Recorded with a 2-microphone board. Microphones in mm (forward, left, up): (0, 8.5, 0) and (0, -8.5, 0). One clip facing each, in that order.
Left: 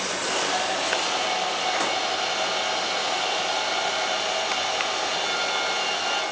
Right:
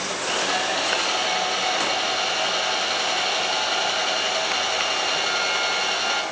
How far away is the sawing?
About 10 m.